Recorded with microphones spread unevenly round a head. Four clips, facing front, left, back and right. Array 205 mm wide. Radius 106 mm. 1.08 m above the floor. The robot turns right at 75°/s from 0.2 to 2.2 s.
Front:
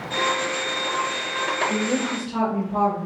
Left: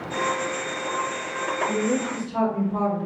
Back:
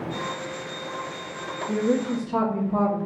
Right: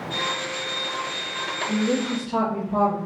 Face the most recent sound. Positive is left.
turn(degrees=-145)